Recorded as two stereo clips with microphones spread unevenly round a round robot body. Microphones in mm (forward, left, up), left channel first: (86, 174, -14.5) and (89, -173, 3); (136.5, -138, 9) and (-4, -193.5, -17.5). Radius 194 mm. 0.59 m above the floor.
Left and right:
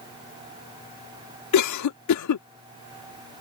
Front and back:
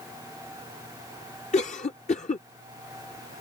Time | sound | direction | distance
1.5 | a cough | 75° left | ?